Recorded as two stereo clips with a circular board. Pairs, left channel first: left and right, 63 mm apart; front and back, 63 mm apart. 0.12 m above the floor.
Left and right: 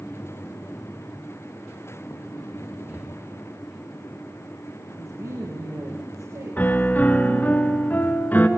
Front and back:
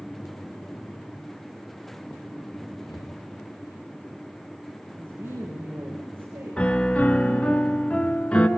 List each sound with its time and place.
2.9 s breathing: 15° right, 2.5 m
5.0 s a woman speaking: 125° right, 6.5 m
6.6 s a piano: 55° left, 1.7 m